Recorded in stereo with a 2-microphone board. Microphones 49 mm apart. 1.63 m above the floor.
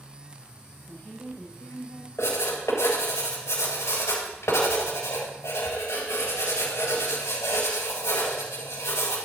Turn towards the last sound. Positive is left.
turn(degrees=75)  # may be behind; listen again after turning